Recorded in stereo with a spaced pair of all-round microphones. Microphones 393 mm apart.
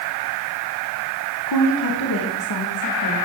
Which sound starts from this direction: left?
A woman speaking, at 1.5 s.